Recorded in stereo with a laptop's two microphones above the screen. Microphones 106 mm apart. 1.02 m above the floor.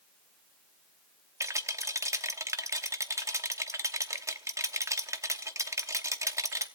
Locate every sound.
1.4 s a rattle: 30° right (ahead or behind), 0.8 m